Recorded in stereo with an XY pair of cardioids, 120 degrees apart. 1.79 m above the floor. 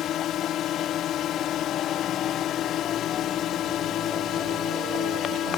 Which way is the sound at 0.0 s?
65° left.